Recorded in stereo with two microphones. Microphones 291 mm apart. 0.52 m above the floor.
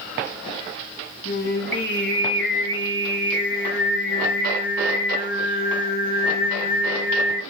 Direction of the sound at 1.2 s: 40° left (ahead or behind).